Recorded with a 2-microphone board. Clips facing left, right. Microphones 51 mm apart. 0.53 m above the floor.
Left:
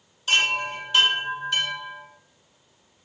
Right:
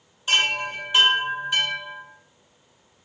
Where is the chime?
15° right (ahead or behind), 1.2 m.